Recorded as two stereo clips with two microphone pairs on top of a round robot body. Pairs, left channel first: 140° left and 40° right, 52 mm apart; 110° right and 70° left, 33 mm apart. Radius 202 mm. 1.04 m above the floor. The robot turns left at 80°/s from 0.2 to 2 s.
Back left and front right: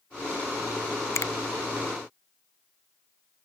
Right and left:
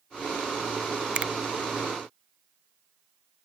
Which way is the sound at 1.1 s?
125° left.